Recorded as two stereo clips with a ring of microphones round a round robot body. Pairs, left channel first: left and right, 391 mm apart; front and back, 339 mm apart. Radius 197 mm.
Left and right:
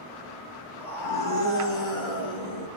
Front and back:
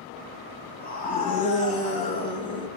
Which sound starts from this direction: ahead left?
A scream, at 0.8 s.